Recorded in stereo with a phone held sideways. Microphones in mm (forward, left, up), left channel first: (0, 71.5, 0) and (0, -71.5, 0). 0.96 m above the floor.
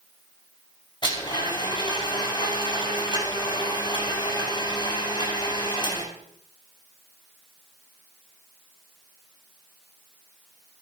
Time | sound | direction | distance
1.0 | a blender | 35° left (ahead or behind) | 5.5 m